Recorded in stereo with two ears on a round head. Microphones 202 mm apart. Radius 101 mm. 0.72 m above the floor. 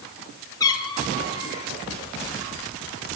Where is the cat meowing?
15° left (ahead or behind), 5 m; by 1.7 s 30° left (ahead or behind), 5.5 m.